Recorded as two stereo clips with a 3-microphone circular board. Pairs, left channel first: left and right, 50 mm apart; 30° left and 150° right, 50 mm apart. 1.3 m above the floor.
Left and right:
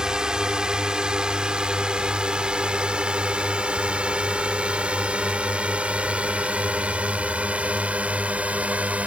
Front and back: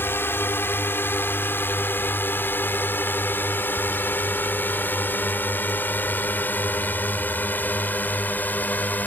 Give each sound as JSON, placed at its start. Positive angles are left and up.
{"t": 0.0, "sound": "a drone", "azimuth_deg": -15}